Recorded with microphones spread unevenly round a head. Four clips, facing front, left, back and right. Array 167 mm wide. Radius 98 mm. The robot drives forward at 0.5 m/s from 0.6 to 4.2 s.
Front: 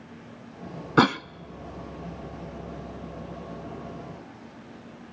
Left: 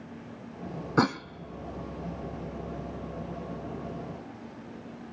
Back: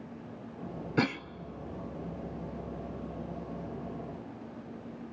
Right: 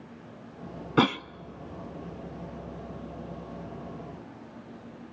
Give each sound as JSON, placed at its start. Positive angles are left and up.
{"t": 1.0, "sound": "a cough", "azimuth_deg": -25, "distance_m": 0.6}